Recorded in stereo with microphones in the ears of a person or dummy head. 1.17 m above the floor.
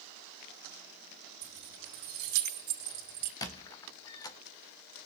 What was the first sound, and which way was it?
Keys jangling, 60° right (ahead or behind).